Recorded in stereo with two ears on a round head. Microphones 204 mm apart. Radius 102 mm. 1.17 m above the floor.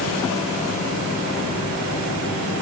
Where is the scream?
No scream in this recording.